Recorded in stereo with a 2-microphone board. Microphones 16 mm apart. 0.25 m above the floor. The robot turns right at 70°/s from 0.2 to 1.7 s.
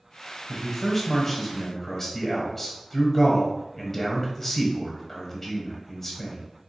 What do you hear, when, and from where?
0.5 s a man speaking: 5° left (ahead or behind), 1.0 m; by 6.4 s 20° left (ahead or behind), 1.0 m